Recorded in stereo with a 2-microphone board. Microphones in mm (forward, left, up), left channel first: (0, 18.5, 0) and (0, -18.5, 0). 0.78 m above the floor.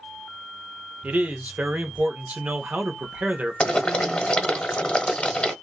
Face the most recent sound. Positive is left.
turn(degrees=30)  # may be behind; listen again after turning